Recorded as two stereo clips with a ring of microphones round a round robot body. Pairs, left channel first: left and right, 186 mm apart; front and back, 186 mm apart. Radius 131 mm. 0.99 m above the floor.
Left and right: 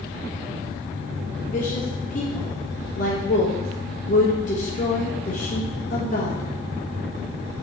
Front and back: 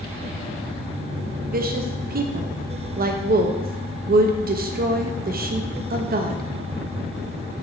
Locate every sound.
1.5 s a woman speaking: 145° left, 0.7 m